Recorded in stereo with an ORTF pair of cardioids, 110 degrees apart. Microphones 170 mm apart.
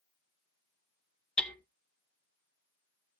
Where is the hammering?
5° left, 0.9 m.